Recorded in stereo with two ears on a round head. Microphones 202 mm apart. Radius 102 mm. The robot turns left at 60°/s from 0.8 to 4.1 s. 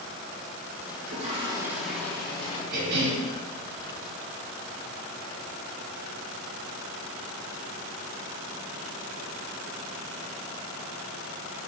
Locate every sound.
1.0 s a toilet flushing: 125° right, 2 m; by 2.6 s 135° left, 2 m
2.7 s a cough: 40° right (ahead or behind), 2.5 m; by 3.2 s 65° right (ahead or behind), 2.5 m